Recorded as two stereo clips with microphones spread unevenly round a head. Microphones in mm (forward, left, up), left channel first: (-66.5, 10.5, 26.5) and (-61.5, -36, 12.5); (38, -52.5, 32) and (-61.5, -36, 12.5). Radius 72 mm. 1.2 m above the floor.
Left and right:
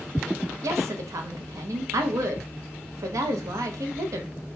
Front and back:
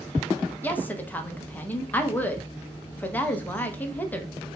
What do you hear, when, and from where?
0.6 s a woman speaking: 80° right, 0.7 m